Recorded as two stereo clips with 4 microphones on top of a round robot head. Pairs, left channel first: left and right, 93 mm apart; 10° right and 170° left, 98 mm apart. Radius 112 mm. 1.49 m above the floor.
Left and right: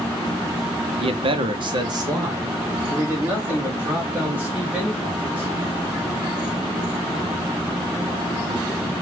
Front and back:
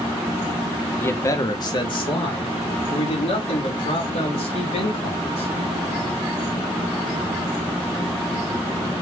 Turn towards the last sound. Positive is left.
turn(degrees=-10)